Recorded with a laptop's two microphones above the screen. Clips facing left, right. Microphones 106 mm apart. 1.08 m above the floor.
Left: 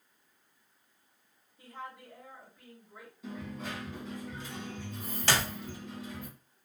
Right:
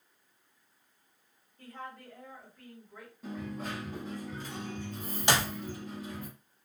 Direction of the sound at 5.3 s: 20° right (ahead or behind).